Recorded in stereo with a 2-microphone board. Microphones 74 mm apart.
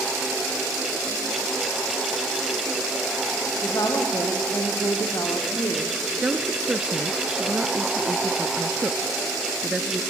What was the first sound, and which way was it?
A woman speaking, 55° left (ahead or behind).